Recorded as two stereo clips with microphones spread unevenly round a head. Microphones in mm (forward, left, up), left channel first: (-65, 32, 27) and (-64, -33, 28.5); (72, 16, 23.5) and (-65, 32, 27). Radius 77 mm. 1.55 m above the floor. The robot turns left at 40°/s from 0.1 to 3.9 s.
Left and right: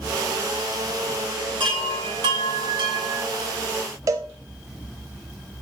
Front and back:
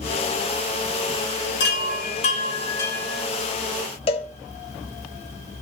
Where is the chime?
30° right, 3 m; by 3.2 s 95° right, 3 m.